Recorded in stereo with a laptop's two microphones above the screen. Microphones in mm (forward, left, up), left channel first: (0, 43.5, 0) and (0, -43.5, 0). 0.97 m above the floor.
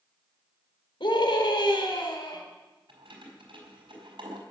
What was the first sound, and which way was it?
A scream, 70° left (ahead or behind).